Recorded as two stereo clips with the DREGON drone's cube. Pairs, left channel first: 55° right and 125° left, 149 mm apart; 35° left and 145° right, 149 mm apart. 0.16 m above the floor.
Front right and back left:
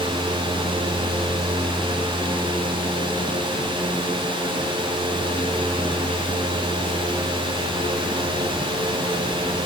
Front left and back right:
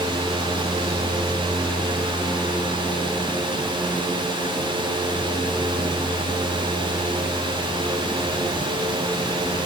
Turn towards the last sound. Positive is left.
No sound to turn to.